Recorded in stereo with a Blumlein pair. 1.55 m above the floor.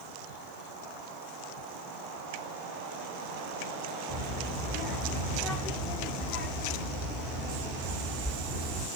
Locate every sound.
4.1 s a child speaking: 20° left, 1.2 m